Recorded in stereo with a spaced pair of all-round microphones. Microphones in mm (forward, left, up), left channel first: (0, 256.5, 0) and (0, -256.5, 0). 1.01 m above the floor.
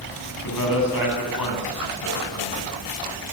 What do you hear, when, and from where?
0.4 s a man speaking: 40° left (ahead or behind), 9.5 m